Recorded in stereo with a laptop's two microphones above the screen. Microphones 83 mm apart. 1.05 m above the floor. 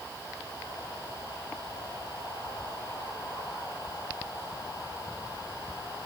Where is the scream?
No scream in this recording.